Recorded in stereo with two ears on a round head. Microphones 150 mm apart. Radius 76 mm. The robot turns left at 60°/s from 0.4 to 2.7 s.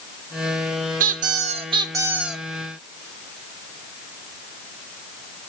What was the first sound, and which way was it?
A squeak, 95° right.